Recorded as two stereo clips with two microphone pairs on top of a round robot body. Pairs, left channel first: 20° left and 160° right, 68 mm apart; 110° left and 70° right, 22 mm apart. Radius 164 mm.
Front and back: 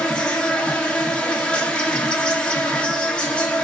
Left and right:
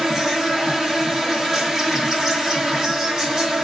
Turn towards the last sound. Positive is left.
turn(degrees=-25)